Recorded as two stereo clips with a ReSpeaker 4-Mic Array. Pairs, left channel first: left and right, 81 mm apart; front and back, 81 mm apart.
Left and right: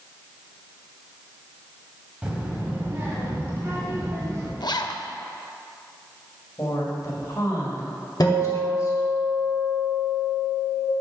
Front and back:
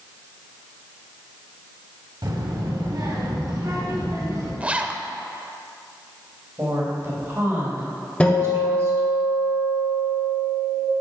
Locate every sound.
2.2 s a child speaking: 165° right, 1.5 m; by 4.5 s 140° right, 3 m
4.6 s a zipper: 105° left, 0.5 m
6.6 s a woman speaking: 130° left, 2.5 m
8.2 s a guitar: 70° left, 1.5 m